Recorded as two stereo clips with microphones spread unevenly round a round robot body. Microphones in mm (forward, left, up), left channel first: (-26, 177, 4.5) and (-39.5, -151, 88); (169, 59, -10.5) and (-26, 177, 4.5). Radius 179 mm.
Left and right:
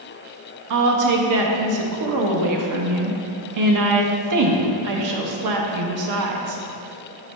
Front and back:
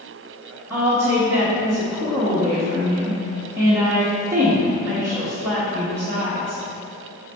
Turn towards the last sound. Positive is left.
turn(degrees=-130)